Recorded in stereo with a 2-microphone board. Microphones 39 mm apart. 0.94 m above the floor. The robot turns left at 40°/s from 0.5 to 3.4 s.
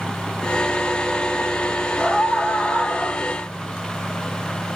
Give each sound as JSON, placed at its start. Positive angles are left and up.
{"t": 2.0, "sound": "a scream", "azimuth_deg": 170, "distance_m": 3.0}